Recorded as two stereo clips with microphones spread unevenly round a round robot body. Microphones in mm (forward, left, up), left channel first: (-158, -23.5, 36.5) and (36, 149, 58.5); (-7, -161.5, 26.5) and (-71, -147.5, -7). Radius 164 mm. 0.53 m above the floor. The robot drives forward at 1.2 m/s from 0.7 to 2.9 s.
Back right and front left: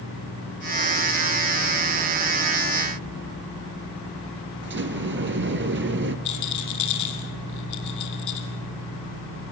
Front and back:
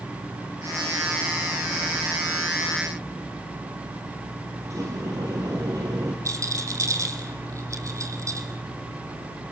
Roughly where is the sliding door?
Left.